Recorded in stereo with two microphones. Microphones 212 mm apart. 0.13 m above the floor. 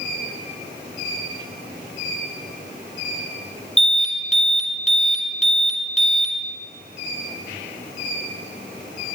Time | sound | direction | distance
3.8 | an alarm | 35° left (ahead or behind) | 2 m